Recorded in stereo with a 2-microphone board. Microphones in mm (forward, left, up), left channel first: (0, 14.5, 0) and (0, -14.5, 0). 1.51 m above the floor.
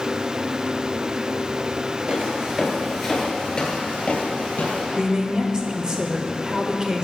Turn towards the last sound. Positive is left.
turn(degrees=-30)  # may be behind; listen again after turning